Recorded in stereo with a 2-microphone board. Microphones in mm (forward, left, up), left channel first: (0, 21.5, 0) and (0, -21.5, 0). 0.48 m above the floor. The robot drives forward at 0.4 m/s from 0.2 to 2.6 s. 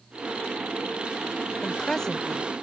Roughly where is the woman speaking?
Centre.